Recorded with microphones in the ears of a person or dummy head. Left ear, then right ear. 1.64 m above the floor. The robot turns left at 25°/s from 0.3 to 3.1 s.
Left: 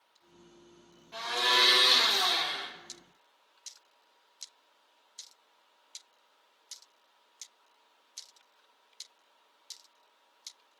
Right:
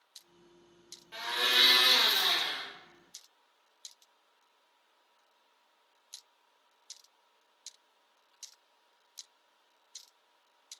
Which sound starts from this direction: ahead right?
A blender, at 1.1 s.